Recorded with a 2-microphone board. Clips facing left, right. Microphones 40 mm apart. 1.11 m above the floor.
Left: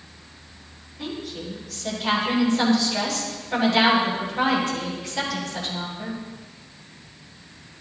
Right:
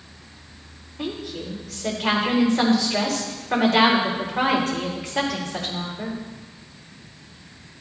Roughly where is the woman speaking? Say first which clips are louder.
Right 2 dB; right.